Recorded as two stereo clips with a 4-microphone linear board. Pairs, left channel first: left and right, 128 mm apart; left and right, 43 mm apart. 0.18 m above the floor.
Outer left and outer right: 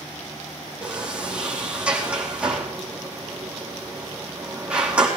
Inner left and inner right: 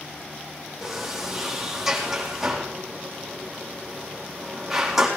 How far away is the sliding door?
About 4 m.